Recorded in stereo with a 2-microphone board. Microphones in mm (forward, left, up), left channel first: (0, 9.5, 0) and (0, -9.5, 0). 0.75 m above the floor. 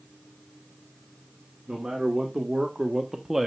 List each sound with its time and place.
1.7 s a man speaking: 40° right (ahead or behind), 1.9 m; by 3.5 s 20° right (ahead or behind), 0.8 m